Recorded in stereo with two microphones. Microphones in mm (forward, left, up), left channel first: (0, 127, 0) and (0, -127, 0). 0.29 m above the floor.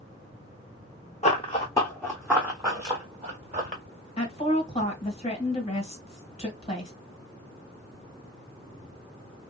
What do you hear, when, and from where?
1.2 s running footsteps: 30° left (ahead or behind), 1.2 m; by 3.8 s 30° right (ahead or behind), 2 m
4.2 s a woman speaking: 25° left (ahead or behind), 1.3 m